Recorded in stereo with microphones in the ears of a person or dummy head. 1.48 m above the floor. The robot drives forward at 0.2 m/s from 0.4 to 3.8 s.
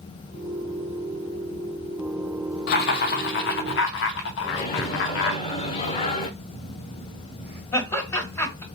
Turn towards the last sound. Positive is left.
turn(degrees=15)  # may be behind; listen again after turning